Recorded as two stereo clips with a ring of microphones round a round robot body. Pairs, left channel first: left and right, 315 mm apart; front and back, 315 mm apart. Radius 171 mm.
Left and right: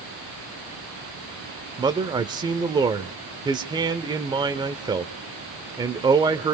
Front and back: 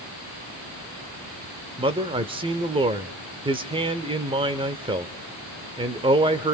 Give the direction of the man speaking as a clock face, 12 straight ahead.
5 o'clock.